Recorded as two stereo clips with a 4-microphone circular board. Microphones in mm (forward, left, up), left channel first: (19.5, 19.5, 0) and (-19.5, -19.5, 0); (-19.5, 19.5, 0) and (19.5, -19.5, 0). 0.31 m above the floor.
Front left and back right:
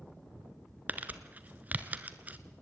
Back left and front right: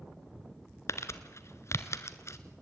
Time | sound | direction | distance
0.9 | crumpling | 165° left | 1.3 m